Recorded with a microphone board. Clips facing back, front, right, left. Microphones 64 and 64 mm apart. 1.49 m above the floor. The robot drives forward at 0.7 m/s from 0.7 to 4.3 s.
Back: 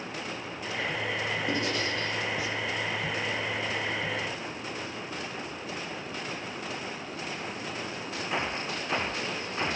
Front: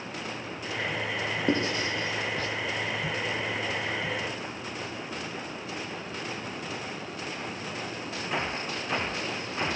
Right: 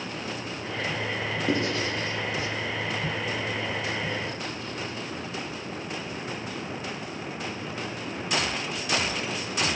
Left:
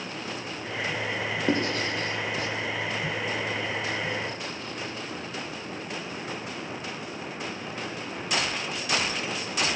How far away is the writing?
About 0.8 m.